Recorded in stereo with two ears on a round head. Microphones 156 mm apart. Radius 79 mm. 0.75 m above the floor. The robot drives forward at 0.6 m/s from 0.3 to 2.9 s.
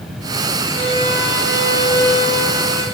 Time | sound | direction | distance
0.7 | a violin | 15° right (ahead or behind) | 9 m